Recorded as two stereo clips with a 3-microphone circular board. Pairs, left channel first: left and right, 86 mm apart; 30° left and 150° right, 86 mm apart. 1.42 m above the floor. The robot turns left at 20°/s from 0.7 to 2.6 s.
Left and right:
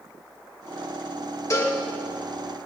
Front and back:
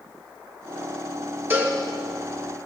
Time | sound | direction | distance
1.5 | a cowbell | 145° left | 1.9 m